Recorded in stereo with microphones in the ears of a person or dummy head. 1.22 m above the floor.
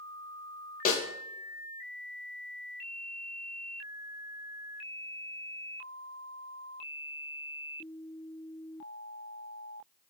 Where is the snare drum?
45° left (ahead or behind), 0.5 m.